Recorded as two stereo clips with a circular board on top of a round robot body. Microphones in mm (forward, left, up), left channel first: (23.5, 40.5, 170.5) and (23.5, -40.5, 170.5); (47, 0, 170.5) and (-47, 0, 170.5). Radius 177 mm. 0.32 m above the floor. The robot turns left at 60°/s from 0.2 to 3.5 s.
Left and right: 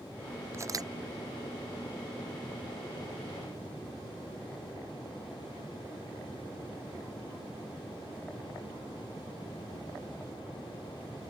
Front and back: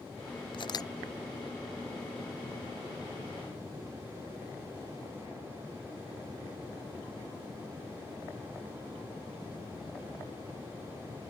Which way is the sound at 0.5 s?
35° right.